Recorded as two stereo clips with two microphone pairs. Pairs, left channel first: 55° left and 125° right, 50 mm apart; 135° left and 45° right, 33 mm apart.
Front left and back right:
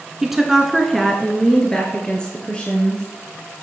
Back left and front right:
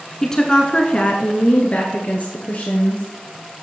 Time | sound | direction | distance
0.2 | a woman speaking | 170° left | 1.1 m